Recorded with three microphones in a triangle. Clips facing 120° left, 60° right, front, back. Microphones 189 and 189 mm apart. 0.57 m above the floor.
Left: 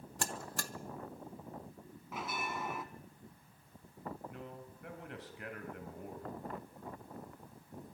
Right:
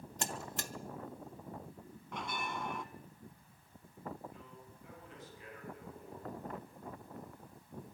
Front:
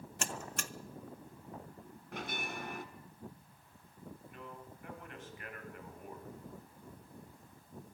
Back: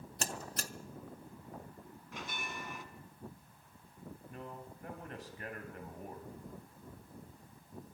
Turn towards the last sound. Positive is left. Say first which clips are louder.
# left 6 dB, back 3 dB
turn(degrees=130)